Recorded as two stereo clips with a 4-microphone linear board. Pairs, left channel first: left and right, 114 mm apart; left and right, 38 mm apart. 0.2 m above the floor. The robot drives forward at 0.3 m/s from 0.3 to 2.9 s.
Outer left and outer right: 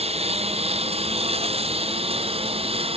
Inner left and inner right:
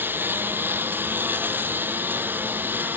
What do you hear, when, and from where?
0.0 s a lawn mower: 65° right (ahead or behind); by 3.0 s 60° right (ahead or behind)